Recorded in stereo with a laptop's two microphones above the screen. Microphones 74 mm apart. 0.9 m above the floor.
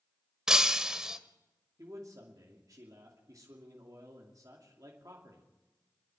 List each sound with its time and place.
0.5 s breaking glass: 10° right (ahead or behind), 0.9 m
1.8 s a man speaking: 50° right (ahead or behind), 2.5 m